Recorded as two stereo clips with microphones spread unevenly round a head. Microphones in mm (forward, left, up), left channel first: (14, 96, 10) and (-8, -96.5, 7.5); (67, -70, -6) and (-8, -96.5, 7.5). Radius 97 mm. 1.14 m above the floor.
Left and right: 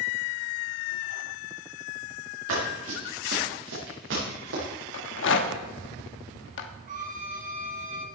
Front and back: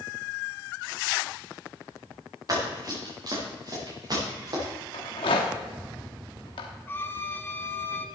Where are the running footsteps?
125° right, 6.5 m; by 4.6 s 130° right, 7.5 m.